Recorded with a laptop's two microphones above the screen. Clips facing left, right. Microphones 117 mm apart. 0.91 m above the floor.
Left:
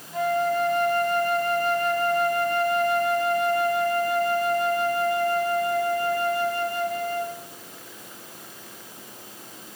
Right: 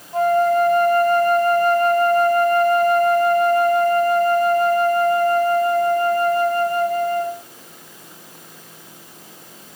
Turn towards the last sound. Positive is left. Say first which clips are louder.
# right 7 dB
turn(degrees=-45)  # may be behind; listen again after turning